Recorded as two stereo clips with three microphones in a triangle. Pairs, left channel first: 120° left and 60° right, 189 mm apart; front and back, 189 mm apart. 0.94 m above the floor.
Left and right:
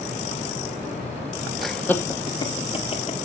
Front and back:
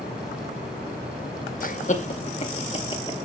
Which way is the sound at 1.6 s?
30° left.